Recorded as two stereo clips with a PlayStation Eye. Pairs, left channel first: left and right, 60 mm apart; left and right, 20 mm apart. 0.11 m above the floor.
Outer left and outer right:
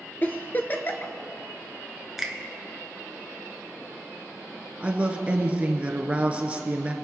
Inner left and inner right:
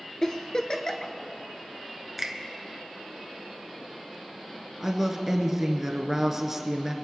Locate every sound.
0.2 s a giggle: 30° left (ahead or behind), 0.8 m
2.2 s a finger snap: 5° right (ahead or behind), 1.1 m
4.8 s a woman speaking: 20° right (ahead or behind), 1.2 m